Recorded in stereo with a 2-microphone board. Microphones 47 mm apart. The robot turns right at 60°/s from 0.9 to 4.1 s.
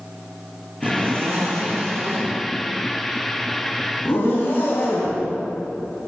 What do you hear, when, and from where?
0.8 s a zipper: 135° right, 9 m; by 5.2 s 55° left, 9 m